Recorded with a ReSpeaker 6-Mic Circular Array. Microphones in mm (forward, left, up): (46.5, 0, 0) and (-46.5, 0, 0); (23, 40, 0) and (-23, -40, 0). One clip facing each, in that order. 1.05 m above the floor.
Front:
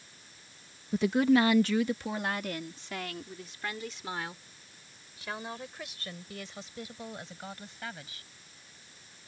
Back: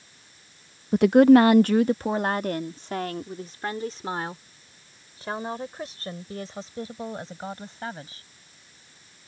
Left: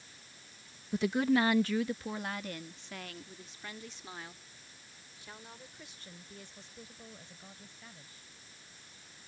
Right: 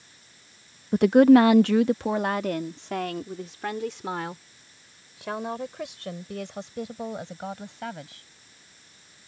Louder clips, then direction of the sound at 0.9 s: Back 10 dB, right 14 dB; 155° right.